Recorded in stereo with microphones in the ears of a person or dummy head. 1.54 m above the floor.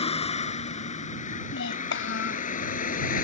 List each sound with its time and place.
0.0 s a vehicle: 40° left (ahead or behind); by 3.2 s 60° left (ahead or behind)
1.5 s a child speaking: 80° left